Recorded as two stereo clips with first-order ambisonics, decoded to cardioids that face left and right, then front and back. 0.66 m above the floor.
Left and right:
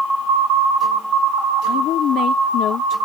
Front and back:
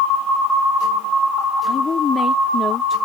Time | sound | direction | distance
1.7 | a woman speaking | 60° left | ?